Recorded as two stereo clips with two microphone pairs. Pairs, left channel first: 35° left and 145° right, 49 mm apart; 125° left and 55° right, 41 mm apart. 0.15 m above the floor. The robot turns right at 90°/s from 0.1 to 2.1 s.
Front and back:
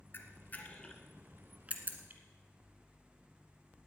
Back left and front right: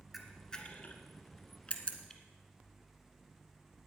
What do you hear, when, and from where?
0.1 s a camera shutter: 30° left, 1.3 m; by 2.2 s 155° right, 1.3 m